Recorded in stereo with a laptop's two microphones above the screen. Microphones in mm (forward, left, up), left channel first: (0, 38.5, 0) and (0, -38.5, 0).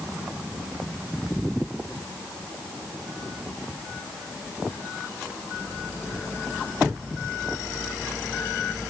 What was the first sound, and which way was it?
Only background noise.